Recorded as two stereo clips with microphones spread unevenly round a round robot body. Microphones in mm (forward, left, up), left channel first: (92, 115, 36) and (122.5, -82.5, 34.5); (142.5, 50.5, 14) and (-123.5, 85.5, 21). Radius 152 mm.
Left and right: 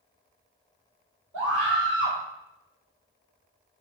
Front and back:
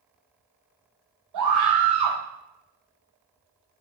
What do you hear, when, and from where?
1.3 s a scream: 165° right, 3.5 m